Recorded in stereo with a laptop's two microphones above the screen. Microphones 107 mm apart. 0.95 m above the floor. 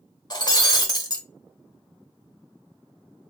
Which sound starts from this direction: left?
Breaking glass, at 0.3 s.